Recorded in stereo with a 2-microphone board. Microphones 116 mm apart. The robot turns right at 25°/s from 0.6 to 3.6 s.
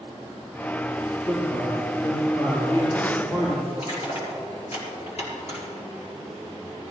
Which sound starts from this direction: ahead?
A man speaking, at 1.3 s.